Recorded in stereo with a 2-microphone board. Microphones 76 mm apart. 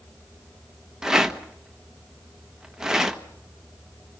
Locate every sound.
1.0 s a rattle: 5° right (ahead or behind), 1.3 m